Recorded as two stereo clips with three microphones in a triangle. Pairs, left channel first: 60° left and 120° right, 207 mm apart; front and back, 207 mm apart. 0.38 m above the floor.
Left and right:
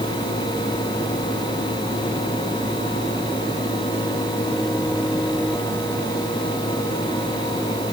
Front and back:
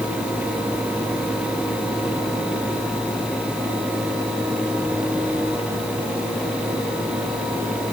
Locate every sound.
Only background noise.